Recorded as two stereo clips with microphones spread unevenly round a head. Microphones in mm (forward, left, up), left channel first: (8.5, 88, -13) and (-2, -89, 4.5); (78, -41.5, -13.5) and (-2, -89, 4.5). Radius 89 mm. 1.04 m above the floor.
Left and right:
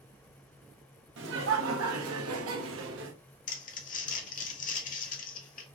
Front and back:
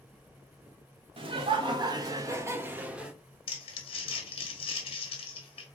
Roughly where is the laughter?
Behind right.